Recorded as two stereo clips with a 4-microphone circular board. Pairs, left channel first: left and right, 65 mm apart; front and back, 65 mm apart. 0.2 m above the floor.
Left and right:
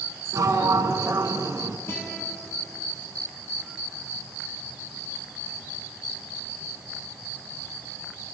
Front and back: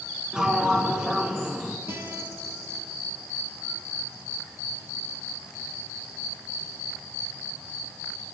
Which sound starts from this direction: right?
A sliding door, at 0.3 s.